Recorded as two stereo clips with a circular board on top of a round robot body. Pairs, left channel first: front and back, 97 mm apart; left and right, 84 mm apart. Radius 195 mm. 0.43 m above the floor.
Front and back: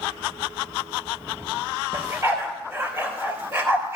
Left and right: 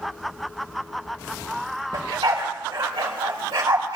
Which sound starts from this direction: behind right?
A dog barking, at 1.9 s.